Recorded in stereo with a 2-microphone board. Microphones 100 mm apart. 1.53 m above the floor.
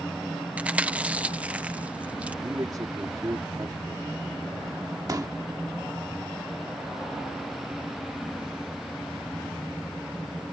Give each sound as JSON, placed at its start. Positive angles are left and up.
{"t": 0.6, "sound": "chewing", "side_deg": -15}
{"t": 2.4, "sound": "a man speaking", "side_deg": -40}
{"t": 5.1, "sound": "a pop", "side_deg": -40}